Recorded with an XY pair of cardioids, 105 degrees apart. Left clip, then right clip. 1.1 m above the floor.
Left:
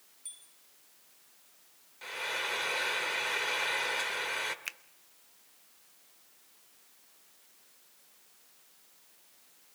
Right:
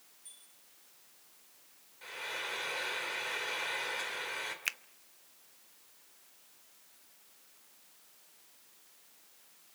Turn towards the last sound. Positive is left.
turn(degrees=-30)